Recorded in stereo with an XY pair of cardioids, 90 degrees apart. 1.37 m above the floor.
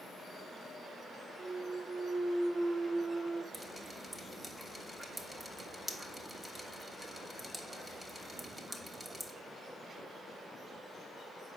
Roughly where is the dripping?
Ahead.